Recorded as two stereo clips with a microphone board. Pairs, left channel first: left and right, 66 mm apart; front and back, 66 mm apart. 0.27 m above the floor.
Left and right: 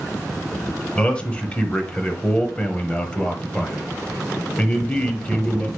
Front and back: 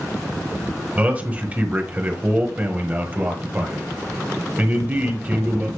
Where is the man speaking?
145° left, 1.2 m.